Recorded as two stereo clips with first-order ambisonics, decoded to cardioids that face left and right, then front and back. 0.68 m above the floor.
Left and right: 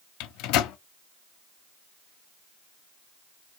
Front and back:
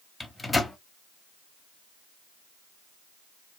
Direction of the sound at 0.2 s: 80° left.